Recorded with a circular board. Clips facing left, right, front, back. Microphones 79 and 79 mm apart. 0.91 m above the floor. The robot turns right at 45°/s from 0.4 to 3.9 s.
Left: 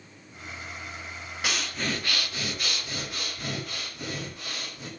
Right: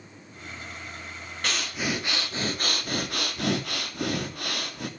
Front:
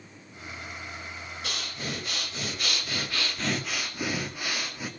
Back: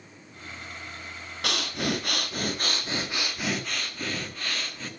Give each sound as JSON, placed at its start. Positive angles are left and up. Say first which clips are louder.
{"t": 1.4, "sound": "breathing", "louder": "right 1 dB, back 8 dB", "azimuth_deg": 175, "distance_m": 1.7}